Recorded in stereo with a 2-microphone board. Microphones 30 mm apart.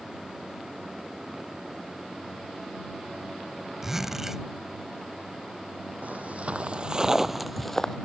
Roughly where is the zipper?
Centre.